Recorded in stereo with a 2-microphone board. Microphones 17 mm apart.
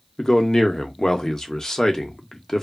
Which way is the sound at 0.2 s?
25° left (ahead or behind).